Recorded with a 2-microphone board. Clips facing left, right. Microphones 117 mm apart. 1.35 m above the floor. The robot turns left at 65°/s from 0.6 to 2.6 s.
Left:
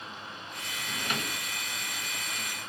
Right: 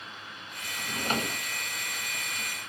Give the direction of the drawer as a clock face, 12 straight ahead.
2 o'clock.